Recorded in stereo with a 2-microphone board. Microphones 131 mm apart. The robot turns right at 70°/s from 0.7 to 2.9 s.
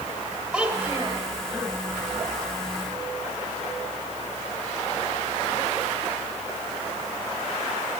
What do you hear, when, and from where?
0.5 s a child speaking: 175° right, 2.0 m; by 1.2 s 135° right, 2.0 m